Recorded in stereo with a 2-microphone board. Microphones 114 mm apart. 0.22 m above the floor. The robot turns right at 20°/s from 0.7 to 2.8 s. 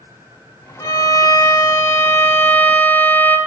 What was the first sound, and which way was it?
A violin, 120° left.